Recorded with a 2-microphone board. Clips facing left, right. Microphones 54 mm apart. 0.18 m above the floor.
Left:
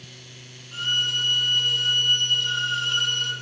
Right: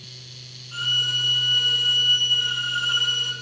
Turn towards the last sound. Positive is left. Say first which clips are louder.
# right 1 dB
turn(degrees=-20)  # may be behind; listen again after turning